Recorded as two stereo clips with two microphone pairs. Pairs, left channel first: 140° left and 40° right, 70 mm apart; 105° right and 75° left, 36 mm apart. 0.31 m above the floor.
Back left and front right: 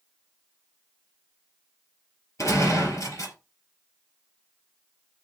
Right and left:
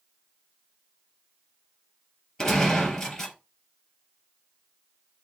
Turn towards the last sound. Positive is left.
turn(degrees=180)